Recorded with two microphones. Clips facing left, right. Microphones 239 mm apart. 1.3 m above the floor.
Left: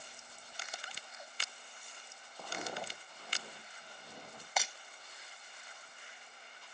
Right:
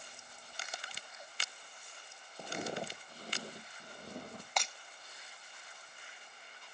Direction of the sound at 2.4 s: 20° right (ahead or behind).